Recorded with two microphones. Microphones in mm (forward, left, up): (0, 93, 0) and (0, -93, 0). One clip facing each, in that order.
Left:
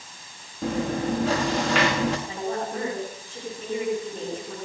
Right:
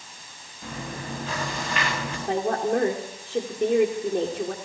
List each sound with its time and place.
0.6 s chewing: 85° left, 5.5 m
2.3 s a woman speaking: 65° right (ahead or behind), 8 m